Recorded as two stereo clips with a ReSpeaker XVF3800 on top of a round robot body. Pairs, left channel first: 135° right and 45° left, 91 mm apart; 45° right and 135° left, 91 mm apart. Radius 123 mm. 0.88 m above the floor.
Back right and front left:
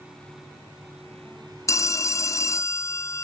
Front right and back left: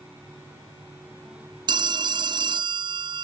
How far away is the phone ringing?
About 0.7 m.